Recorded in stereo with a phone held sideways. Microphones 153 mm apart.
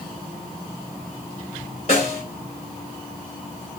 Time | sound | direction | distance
1.9 | a snare drum | 45° left (ahead or behind) | 2.5 m